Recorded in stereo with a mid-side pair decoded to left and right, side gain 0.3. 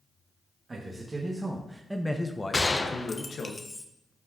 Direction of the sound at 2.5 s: 30° left.